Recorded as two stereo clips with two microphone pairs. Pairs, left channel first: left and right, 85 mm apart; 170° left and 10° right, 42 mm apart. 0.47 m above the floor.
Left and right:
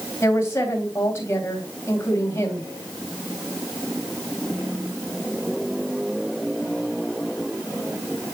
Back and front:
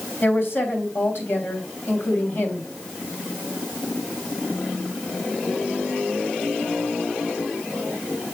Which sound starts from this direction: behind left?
A woman speaking, at 0.2 s.